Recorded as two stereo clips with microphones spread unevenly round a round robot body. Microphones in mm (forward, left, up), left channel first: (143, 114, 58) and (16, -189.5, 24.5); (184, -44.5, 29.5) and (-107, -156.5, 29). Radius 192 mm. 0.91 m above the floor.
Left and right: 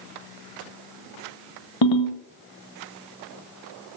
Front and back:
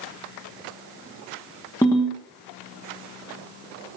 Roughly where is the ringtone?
Left.